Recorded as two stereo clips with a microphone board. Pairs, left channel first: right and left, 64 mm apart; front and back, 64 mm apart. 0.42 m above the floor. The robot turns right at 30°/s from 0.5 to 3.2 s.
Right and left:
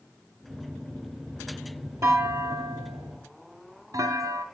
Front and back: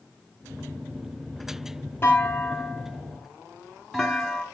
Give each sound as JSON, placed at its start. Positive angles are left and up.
{"t": 2.0, "sound": "a clunk", "azimuth_deg": 55, "distance_m": 1.7}